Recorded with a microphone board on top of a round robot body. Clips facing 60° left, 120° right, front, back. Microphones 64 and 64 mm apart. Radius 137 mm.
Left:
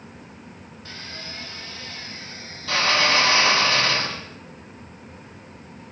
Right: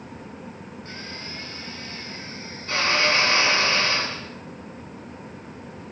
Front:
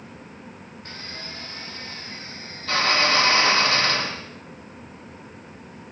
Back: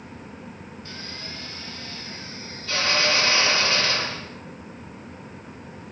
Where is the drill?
45° left, 8 m.